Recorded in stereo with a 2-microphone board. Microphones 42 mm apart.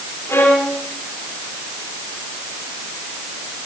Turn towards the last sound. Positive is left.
turn(degrees=70)  # may be behind; listen again after turning